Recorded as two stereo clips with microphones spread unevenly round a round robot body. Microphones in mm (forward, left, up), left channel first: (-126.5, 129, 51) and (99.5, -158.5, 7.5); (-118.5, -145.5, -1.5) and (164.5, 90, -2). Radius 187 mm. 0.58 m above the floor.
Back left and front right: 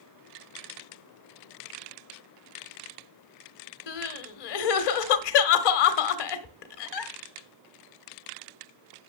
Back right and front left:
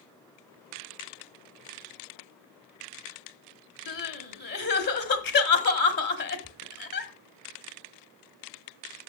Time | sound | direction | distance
3.9 | crying | 155° left | 1.3 m